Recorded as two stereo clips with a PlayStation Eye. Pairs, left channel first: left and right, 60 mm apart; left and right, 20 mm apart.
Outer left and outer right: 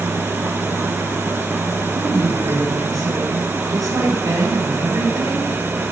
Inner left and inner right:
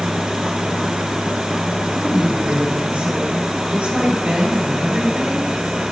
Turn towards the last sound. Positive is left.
turn(degrees=-85)